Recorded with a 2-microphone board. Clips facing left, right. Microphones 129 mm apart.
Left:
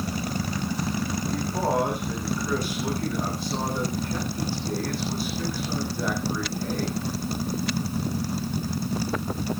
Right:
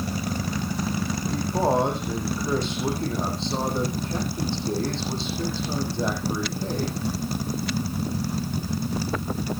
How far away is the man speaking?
About 6 m.